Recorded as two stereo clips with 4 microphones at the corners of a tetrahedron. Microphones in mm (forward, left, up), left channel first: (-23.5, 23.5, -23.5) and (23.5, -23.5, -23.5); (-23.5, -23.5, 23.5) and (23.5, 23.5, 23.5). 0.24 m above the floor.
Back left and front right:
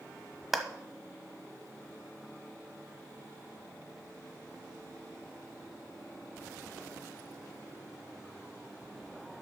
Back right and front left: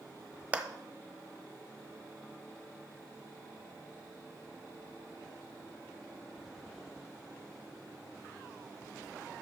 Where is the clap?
40° left, 1.1 m.